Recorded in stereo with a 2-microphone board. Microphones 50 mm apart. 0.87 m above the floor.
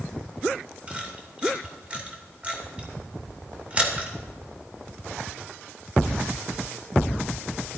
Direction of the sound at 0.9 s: 25° right (ahead or behind).